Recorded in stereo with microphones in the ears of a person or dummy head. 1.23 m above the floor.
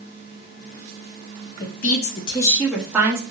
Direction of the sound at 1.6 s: 50° left (ahead or behind).